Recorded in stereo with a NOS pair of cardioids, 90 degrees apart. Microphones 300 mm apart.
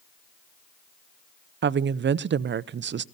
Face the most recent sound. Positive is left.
turn(degrees=-40)